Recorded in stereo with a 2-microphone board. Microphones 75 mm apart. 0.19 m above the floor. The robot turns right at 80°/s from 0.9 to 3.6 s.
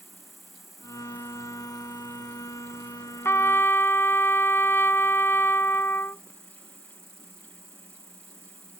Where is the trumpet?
35° left (ahead or behind); by 6.2 s 30° left (ahead or behind).